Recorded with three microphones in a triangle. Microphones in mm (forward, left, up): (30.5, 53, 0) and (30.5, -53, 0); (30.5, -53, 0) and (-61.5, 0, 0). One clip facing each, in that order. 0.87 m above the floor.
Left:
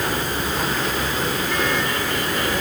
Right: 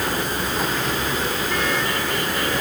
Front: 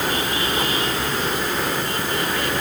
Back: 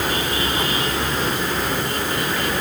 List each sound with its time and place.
Only background noise.